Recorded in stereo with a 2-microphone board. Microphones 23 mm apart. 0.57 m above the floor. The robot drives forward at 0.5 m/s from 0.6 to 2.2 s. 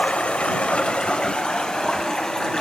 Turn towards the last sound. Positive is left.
turn(degrees=30)  # may be behind; listen again after turning